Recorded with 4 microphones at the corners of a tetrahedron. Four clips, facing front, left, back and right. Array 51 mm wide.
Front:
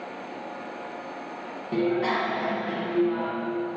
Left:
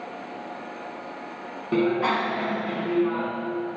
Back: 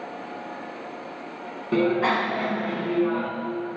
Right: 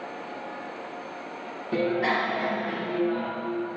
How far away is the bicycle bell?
About 2 m.